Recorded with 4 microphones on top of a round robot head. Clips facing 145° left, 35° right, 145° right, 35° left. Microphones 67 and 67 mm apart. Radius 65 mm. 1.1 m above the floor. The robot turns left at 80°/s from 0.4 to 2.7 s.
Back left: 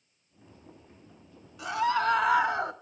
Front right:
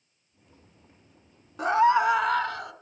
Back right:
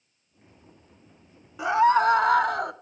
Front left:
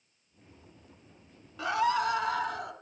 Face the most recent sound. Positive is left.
turn(degrees=-160)